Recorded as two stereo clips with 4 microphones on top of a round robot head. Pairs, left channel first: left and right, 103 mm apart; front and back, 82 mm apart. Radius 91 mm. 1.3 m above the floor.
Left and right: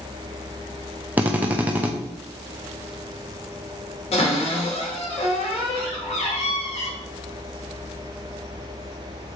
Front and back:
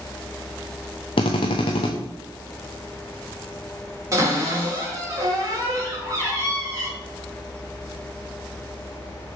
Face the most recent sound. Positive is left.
turn(degrees=130)